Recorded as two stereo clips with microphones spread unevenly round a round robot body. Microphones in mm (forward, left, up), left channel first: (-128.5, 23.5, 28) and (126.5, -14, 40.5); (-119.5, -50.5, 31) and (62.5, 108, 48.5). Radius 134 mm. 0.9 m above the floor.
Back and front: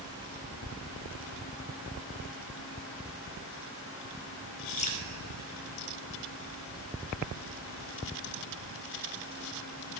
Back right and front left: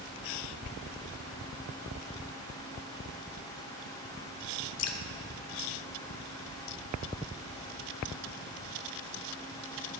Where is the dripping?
125° right, 1.0 m.